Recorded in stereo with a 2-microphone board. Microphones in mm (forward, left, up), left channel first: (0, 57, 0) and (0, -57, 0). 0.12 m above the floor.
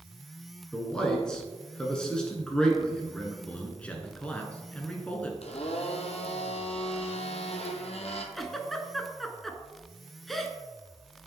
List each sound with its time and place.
0.7 s a man speaking: 5° left (ahead or behind), 1.1 m
3.5 s a man speaking: 10° left (ahead or behind), 1.1 m
5.4 s a blender: 65° left (ahead or behind), 1.0 m
8.3 s a giggle: centre (ahead or behind), 0.7 m